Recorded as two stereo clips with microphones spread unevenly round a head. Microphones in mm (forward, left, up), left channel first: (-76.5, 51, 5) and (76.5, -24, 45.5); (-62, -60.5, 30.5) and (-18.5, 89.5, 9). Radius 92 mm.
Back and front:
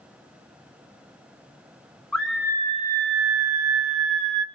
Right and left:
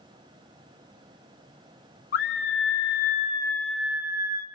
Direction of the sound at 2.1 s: 125° right.